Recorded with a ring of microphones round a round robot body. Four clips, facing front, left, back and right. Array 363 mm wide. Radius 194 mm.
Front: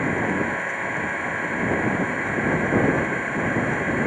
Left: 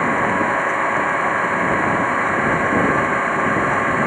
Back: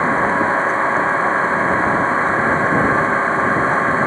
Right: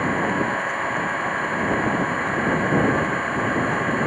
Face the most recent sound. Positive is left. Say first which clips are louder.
# left 4 dB, back 7 dB
turn(degrees=150)